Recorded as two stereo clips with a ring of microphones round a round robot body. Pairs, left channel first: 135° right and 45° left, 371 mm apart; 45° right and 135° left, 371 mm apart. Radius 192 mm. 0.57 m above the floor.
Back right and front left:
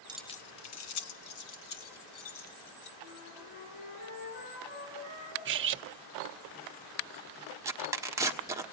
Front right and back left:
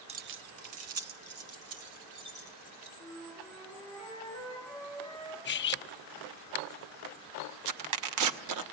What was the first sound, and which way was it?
Keys jangling, 95° left.